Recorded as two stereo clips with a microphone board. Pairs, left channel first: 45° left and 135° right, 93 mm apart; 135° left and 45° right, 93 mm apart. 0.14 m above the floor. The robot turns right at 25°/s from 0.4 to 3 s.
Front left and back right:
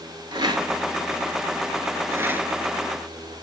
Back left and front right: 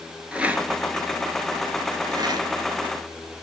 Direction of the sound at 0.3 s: 120° right.